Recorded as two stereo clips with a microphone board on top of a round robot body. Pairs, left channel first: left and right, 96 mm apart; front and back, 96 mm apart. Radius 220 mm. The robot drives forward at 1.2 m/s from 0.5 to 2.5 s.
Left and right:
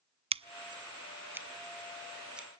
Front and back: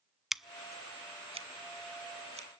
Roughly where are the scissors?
Right.